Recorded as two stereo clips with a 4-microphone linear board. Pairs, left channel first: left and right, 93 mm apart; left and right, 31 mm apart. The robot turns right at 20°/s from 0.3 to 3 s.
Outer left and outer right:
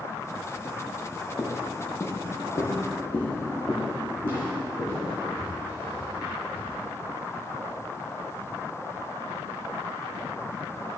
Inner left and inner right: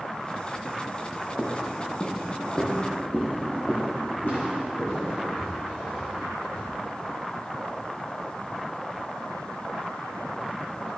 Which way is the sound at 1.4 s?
35° left (ahead or behind).